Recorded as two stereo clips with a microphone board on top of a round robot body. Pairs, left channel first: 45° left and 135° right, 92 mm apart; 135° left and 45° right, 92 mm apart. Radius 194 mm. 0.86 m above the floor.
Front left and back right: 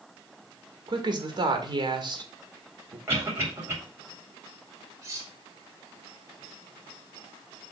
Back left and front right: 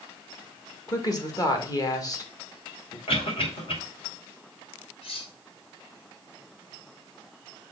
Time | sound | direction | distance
0.9 | a woman speaking | 175° right | 2 m
3.1 | a cough | 160° left | 4 m
5.0 | cutlery clinking | 165° left | 1.4 m